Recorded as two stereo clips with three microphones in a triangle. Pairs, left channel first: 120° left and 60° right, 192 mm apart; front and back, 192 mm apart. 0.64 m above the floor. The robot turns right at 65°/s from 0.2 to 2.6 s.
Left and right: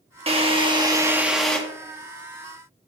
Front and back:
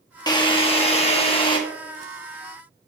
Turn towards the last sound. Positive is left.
turn(degrees=105)